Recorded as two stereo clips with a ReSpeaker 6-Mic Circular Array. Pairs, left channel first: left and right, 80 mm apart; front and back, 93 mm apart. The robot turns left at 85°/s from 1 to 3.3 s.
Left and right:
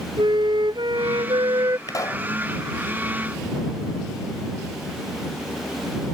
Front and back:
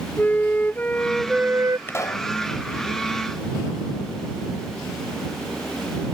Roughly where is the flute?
Right.